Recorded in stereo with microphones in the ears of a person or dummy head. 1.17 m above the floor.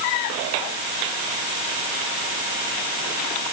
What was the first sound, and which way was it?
Only background noise.